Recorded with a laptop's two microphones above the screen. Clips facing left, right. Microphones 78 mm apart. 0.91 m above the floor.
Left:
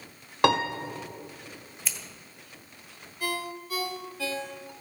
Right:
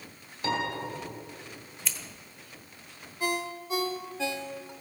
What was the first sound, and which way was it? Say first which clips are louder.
A piano: left 7 dB; 75° left (ahead or behind).